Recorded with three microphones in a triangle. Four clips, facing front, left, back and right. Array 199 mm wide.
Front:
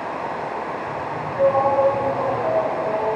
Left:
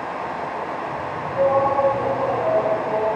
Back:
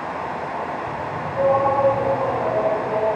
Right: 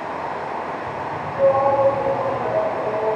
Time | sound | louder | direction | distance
0.0 | running water | even, even | 80° right | 0.9 m
1.3 | a shout | right 2 dB, front 1 dB | 95° left | 0.8 m